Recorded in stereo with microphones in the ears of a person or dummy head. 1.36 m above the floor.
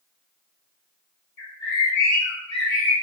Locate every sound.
1.4 s a bird: 15° left (ahead or behind), 1.6 m